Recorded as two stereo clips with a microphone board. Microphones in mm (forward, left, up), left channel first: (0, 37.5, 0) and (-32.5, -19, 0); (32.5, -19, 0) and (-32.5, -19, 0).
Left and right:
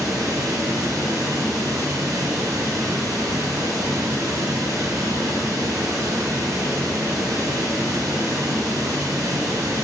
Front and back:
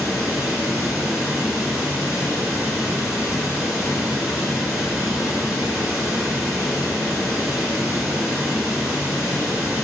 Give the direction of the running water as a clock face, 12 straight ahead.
3 o'clock.